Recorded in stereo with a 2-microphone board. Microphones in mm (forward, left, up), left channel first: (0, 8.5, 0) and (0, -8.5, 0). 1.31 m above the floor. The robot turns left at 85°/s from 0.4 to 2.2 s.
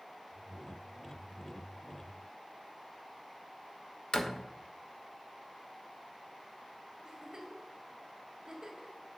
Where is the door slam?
50° left (ahead or behind), 0.9 m.